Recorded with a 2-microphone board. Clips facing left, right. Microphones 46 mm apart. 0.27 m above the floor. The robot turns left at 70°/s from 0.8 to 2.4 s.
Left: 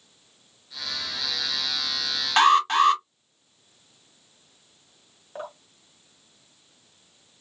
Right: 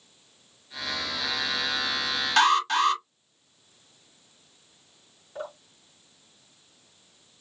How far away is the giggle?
No giggle in this recording.